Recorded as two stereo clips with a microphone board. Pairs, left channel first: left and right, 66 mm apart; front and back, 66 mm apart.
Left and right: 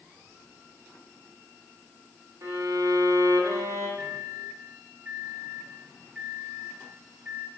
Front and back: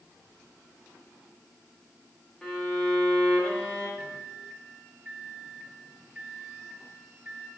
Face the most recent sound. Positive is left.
turn(degrees=-140)